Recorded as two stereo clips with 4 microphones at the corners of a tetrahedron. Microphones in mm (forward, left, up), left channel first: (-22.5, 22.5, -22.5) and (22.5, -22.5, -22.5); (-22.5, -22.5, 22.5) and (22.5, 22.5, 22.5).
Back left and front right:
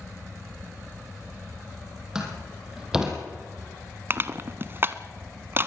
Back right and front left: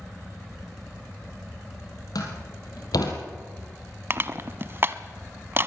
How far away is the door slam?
About 4 m.